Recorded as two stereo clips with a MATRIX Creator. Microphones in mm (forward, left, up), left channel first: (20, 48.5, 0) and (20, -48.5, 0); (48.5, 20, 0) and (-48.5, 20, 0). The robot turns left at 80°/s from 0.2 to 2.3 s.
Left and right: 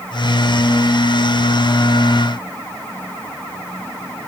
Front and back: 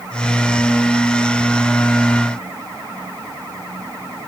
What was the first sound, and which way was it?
Only background noise.